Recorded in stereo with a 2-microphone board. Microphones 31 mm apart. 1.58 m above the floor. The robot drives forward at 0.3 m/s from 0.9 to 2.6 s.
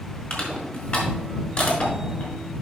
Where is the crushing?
50° left (ahead or behind), 4 m; by 2.3 s 45° left (ahead or behind), 4.5 m.